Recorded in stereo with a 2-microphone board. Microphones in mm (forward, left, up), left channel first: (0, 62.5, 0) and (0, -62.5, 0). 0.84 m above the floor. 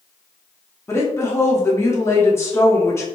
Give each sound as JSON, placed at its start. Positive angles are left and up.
{"t": 0.9, "sound": "a woman speaking", "side_deg": 20, "distance_m": 0.5}